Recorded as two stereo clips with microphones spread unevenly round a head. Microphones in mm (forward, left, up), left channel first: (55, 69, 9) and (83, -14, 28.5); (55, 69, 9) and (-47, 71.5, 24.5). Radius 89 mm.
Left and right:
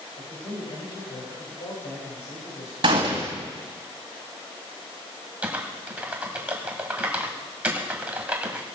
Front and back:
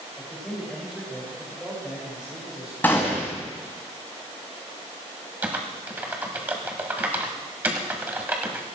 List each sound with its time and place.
0.2 s a man speaking: 80° left, 6 m; by 2.7 s 100° left, 5.5 m
2.8 s a gunshot: 85° right, 2.0 m
5.4 s typing on a keyboard: 125° right, 1.2 m